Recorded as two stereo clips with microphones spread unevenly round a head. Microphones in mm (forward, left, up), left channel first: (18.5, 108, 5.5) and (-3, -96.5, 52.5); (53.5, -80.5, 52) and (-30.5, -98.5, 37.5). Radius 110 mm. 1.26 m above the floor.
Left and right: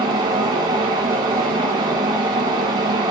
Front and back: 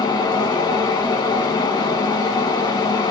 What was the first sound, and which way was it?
A fan, 20° right.